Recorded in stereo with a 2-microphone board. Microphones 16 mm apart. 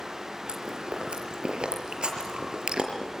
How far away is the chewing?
About 5 m.